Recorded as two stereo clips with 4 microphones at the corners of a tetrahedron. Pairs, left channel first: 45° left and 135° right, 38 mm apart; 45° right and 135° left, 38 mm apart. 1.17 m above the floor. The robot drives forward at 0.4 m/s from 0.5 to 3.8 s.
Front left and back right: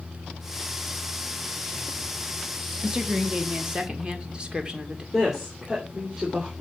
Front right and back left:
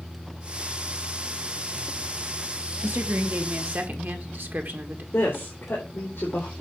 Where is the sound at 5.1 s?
60° right, 3.5 m.